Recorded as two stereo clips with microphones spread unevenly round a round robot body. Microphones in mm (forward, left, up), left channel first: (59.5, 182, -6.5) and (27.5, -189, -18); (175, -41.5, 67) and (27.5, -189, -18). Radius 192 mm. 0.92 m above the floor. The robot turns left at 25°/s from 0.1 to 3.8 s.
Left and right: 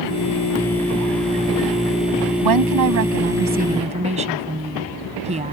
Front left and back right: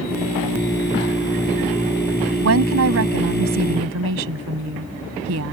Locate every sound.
2.4 s a woman speaking: 135° right; by 5.5 s 170° right